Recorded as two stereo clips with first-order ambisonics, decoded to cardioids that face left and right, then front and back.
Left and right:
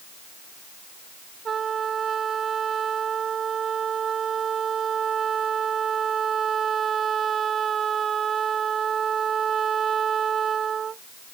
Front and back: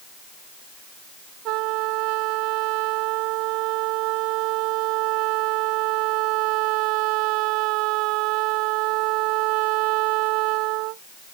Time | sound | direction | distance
1.4 | a trumpet | 155° right | ?